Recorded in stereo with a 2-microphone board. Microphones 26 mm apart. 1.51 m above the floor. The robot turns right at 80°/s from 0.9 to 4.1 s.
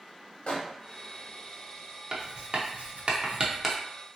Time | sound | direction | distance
0.5 | a microwave | 50° left (ahead or behind) | 1.1 m
2.1 | writing | 35° right (ahead or behind) | 0.7 m